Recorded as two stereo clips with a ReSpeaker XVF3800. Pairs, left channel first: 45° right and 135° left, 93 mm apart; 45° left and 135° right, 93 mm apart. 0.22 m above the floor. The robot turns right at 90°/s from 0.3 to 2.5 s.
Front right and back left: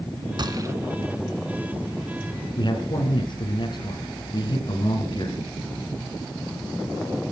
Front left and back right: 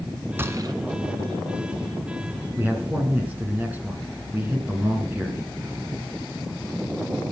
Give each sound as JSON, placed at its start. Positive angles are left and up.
{"t": 0.4, "sound": "a gunshot", "azimuth_deg": 160, "distance_m": 1.3}
{"t": 2.6, "sound": "a man speaking", "azimuth_deg": -65, "distance_m": 3.0}